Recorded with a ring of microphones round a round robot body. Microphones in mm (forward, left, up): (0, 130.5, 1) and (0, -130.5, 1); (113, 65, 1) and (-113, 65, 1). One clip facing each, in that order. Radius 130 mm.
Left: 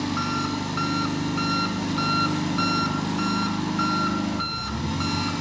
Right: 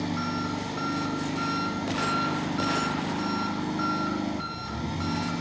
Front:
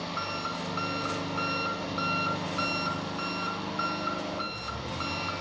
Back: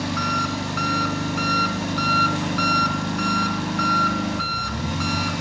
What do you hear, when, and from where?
0.0 s an engine running: 155° left, 1.3 m